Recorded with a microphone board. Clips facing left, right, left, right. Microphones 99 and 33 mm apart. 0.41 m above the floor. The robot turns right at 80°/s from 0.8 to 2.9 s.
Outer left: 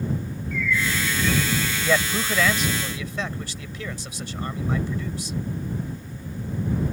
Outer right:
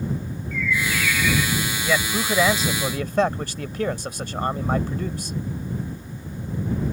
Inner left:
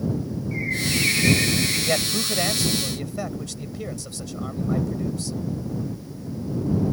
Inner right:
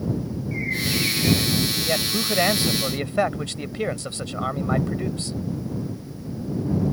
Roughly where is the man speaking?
Behind.